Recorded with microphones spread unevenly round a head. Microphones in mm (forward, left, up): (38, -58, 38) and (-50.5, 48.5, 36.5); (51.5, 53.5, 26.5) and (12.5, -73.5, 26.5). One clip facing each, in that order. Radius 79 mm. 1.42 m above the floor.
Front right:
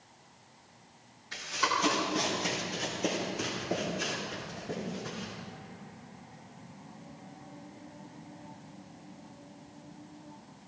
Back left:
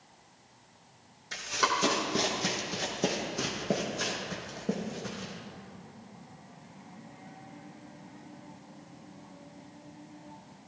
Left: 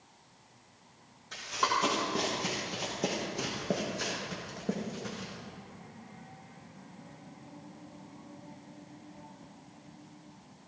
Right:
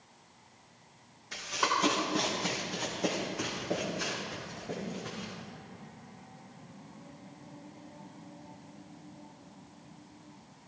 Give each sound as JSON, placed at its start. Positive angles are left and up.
{"t": 1.3, "sound": "running footsteps", "azimuth_deg": 170, "distance_m": 3.5}